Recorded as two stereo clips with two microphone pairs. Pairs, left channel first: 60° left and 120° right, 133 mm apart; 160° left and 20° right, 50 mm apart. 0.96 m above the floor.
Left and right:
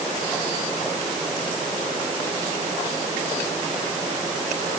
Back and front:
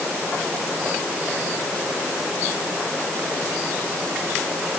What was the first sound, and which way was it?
Only background noise.